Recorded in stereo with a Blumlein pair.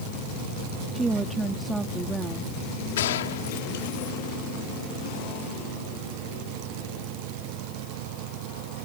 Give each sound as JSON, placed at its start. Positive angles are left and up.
{"t": 0.9, "sound": "a woman speaking", "azimuth_deg": -10}
{"t": 3.0, "sound": "a gunshot", "azimuth_deg": 60}